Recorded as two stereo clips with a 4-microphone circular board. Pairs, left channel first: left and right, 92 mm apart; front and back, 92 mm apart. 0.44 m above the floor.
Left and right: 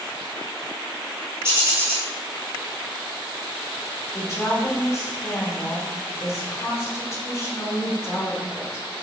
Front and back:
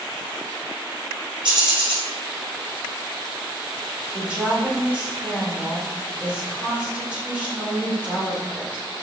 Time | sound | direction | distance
1.4 | a bird | 150° right | 2 m
4.1 | a woman speaking | 115° left | 1.3 m